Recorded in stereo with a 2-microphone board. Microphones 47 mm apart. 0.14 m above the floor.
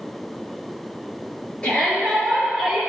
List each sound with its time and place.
1.6 s a shout: 25° left (ahead or behind), 2.5 m; by 2.8 s centre (ahead or behind), 1.7 m